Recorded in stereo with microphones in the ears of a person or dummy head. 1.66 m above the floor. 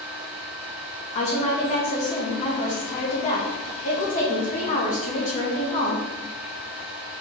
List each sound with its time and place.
0.0 s a fan: 30° right (ahead or behind), 1.6 m
1.1 s a woman speaking: 35° left (ahead or behind), 2.5 m